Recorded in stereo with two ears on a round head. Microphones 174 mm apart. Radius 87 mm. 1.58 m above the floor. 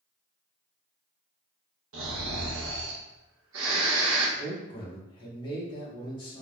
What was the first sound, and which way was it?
Snoring, 75° right (ahead or behind).